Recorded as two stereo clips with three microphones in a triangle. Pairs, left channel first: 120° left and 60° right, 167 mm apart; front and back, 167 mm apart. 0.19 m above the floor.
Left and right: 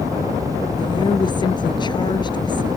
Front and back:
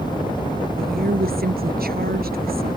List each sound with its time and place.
0.8 s a woman speaking: straight behind